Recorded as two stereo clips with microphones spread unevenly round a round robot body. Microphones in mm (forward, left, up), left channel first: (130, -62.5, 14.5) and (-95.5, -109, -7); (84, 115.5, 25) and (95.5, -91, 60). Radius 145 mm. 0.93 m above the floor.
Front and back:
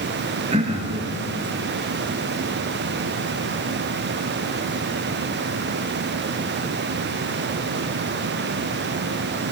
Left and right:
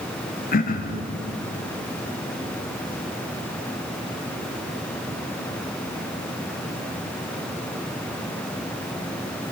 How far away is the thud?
I don't hear a thud.